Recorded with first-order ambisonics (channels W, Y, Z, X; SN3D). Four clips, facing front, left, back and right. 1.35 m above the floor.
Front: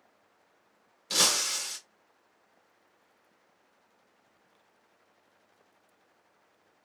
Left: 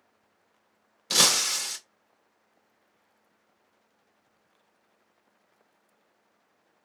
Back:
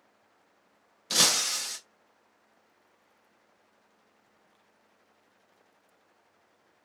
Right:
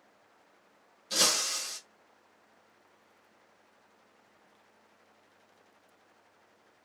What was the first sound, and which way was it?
Breaking glass, 105° left.